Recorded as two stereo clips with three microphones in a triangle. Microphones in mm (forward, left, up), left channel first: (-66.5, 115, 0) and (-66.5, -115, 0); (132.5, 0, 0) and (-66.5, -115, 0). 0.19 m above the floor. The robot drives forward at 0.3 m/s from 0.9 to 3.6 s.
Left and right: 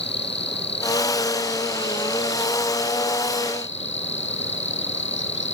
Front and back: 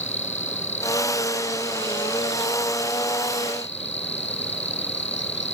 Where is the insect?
55° left; by 5.5 s 60° left.